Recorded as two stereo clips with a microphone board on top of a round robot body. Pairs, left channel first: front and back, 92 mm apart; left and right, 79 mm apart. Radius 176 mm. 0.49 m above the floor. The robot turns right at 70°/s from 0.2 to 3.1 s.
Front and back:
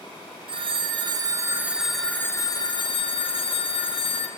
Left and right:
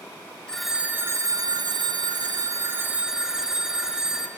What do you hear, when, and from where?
0.5 s a phone ringing: 170° left, 0.8 m; by 4.3 s 5° right, 0.8 m